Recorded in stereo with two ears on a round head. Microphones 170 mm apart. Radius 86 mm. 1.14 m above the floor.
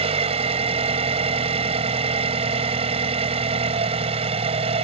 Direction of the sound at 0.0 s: 35° right (ahead or behind).